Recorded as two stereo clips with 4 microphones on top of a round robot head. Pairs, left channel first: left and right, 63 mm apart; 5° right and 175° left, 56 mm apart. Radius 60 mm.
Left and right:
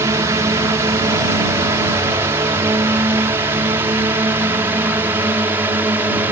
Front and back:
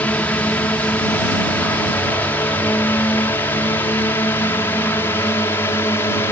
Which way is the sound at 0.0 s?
65° right.